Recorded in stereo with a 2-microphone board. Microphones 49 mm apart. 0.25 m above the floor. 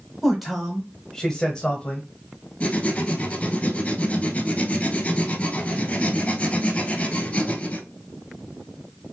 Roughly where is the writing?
Left.